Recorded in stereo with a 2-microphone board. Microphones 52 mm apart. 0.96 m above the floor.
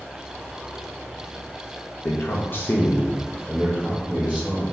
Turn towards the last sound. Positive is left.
turn(degrees=-15)  # may be behind; listen again after turning